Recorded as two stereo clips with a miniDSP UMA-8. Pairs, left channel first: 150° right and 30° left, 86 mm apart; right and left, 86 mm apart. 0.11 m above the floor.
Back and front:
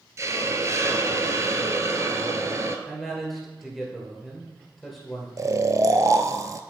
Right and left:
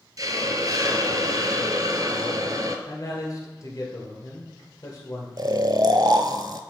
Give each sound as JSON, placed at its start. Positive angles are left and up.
{"t": 0.2, "sound": "a hiss", "azimuth_deg": 75, "distance_m": 0.7}
{"t": 2.9, "sound": "a man speaking", "azimuth_deg": -60, "distance_m": 2.0}
{"t": 5.4, "sound": "snoring", "azimuth_deg": 75, "distance_m": 0.5}